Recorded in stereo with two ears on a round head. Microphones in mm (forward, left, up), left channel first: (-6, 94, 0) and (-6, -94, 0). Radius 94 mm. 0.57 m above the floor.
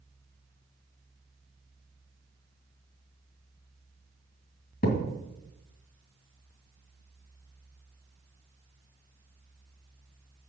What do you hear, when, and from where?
4.8 s a thud: 45° left (ahead or behind), 2.5 m